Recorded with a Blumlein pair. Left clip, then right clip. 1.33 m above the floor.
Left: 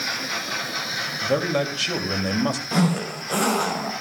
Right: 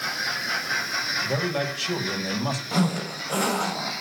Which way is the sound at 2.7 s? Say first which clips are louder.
Left 2 dB; 10° left.